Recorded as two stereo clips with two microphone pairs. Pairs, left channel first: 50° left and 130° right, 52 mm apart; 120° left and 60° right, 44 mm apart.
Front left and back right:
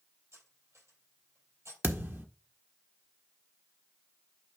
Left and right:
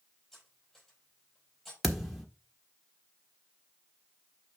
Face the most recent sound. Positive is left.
turn(degrees=-150)